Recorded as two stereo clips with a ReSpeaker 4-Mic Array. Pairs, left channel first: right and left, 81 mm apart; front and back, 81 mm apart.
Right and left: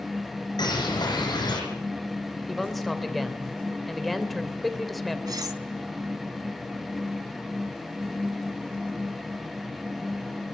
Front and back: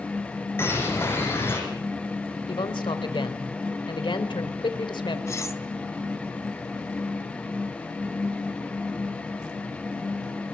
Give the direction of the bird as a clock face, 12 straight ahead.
2 o'clock.